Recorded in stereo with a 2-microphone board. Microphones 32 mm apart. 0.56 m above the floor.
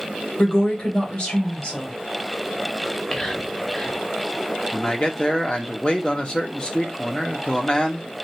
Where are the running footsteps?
No running footsteps in this recording.